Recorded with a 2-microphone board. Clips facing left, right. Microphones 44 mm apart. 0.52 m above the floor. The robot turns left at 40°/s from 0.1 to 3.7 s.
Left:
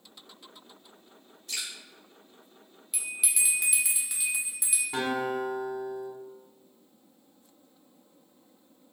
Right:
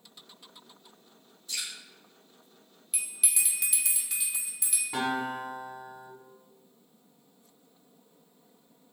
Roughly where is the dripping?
Left.